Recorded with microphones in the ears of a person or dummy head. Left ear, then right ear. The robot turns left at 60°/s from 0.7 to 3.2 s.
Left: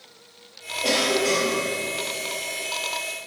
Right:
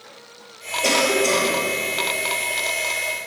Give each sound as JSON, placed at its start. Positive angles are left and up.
{"t": 0.8, "sound": "a cough", "azimuth_deg": -95, "distance_m": 1.8}